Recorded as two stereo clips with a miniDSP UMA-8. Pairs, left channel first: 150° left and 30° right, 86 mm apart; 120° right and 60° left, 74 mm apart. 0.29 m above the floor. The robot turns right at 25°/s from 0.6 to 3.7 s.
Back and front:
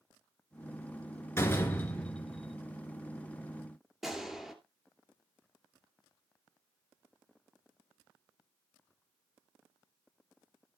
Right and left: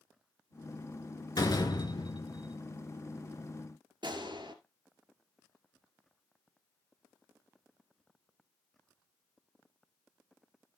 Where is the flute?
I don't hear a flute.